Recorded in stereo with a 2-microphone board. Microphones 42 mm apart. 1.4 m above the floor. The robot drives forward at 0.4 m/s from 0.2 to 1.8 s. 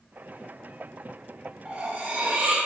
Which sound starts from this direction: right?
Cutlery clinking, at 1.6 s.